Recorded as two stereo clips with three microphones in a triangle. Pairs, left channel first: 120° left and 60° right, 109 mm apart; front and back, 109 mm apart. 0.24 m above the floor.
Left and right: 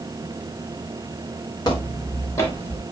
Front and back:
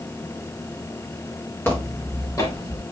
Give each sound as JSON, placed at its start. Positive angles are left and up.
{"t": 1.6, "sound": "footsteps", "azimuth_deg": 70, "distance_m": 5.5}